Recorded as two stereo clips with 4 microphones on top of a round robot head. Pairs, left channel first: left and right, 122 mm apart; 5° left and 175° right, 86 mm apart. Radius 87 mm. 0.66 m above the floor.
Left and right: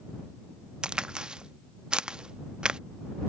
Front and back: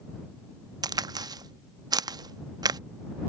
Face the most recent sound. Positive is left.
turn(degrees=-170)